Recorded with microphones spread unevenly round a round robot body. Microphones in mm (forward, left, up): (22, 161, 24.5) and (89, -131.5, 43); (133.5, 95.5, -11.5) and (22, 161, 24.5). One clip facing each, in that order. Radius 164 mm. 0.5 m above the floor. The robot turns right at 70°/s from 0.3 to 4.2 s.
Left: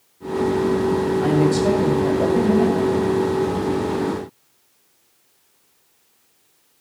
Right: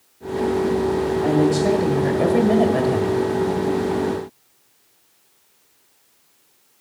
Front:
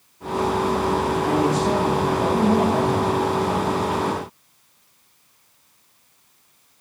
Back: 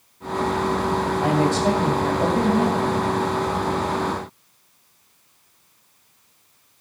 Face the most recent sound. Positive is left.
turn(degrees=15)